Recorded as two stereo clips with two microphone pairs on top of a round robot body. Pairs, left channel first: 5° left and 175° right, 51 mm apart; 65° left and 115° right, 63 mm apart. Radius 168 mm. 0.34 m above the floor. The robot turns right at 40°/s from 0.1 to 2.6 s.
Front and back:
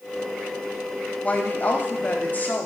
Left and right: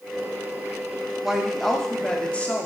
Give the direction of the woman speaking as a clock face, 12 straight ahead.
1 o'clock.